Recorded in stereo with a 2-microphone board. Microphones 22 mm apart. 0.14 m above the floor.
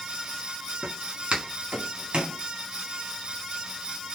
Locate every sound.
0.8 s footsteps: 45° right (ahead or behind), 6 m; by 2.4 s 50° right (ahead or behind), 5 m